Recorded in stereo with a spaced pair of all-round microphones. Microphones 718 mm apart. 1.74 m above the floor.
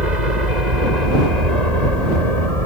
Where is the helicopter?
75° right (ahead or behind); by 2.7 s 50° right (ahead or behind).